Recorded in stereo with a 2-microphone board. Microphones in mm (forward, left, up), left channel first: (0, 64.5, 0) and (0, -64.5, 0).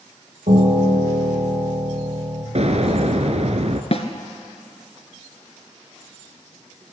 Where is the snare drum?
55° left (ahead or behind), 1.6 m.